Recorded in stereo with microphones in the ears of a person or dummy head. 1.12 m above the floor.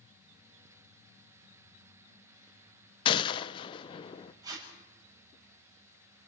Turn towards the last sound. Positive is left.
turn(degrees=-20)  # may be behind; listen again after turning